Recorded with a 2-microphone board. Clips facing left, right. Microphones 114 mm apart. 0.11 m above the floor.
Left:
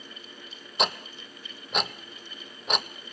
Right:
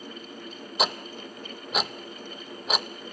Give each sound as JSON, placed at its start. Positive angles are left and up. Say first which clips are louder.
{"t": 0.8, "sound": "ticking", "louder": "even", "side_deg": 0, "distance_m": 0.8}